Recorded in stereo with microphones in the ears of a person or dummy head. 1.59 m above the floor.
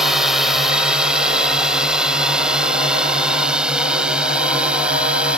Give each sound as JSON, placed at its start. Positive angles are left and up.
{"t": 0.0, "sound": "a drone", "side_deg": -5}